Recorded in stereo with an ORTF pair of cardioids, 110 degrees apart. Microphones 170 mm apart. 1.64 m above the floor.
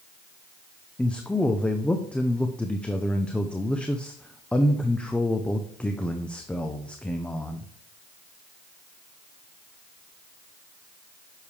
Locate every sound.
1.0 s a man speaking: 5° left, 0.8 m